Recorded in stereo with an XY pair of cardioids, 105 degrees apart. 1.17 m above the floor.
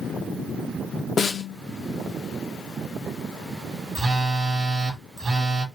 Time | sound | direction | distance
1.2 | a snare drum | 40° left | 0.8 m
4.0 | a phone buzzing | 40° right | 1.3 m